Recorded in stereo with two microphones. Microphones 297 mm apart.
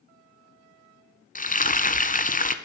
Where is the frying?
30° left (ahead or behind), 1.0 m.